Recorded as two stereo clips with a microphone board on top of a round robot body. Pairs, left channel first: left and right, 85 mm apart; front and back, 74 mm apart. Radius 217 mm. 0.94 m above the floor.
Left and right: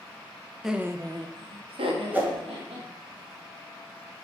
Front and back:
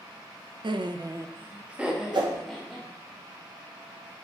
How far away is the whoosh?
About 1.8 m.